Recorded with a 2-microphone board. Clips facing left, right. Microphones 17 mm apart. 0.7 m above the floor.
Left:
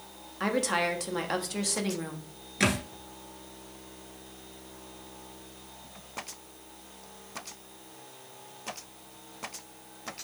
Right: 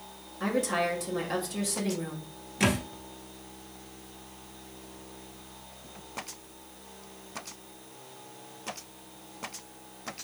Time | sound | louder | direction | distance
0.4 | a woman speaking | even | 30° left (ahead or behind) | 0.9 m
2.6 | a thud | even | 20° left (ahead or behind) | 1.2 m